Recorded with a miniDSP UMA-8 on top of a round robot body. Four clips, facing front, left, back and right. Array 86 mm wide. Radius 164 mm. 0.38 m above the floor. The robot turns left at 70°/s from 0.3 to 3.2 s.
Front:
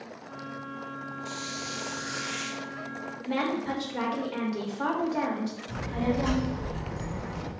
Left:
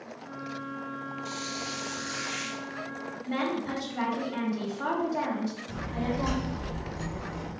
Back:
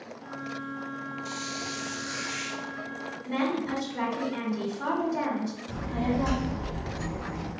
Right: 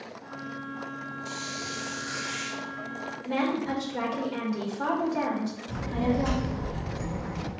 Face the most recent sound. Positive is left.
turn(degrees=-65)